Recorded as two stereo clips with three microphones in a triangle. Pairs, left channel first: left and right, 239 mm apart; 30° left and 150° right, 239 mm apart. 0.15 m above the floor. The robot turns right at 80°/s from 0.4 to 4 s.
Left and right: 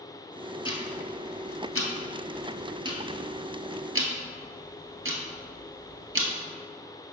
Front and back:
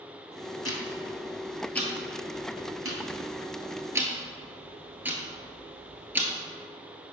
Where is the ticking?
25° left, 1.0 m; by 6.3 s 70° right, 1.0 m.